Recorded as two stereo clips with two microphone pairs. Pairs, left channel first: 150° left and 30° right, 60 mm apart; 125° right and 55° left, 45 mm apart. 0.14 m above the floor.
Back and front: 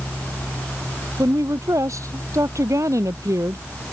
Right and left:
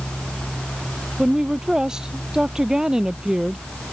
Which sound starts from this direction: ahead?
A woman speaking, at 1.2 s.